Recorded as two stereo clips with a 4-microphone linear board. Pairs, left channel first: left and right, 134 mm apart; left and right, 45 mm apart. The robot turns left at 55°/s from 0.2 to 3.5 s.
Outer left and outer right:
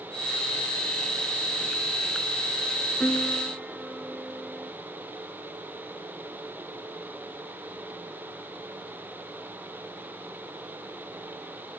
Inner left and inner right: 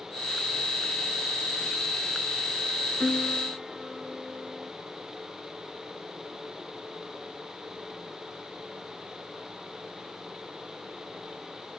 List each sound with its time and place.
3.0 s a piano: 10° left (ahead or behind); by 4.7 s 5° right (ahead or behind)